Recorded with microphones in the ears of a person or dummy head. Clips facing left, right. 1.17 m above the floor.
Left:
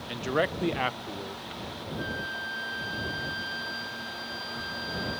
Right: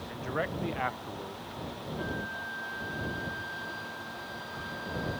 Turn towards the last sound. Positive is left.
turn(degrees=55)  # may be behind; listen again after turning